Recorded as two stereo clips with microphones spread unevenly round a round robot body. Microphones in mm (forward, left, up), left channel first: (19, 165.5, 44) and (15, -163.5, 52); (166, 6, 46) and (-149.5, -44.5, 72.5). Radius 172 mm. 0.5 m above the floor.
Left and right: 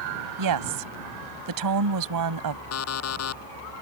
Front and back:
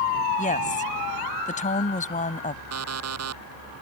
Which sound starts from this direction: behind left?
An alarm clock, at 2.7 s.